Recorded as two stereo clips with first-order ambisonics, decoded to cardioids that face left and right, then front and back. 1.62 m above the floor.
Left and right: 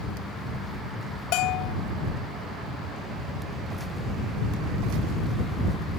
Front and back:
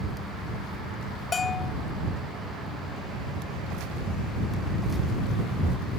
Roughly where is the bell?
Left.